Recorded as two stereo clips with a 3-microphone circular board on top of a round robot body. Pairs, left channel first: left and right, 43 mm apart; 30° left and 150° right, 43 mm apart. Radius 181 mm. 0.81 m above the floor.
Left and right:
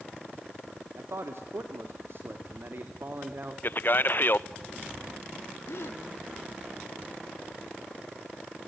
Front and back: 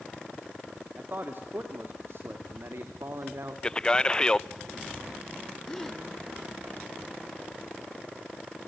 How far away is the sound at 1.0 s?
About 2 m.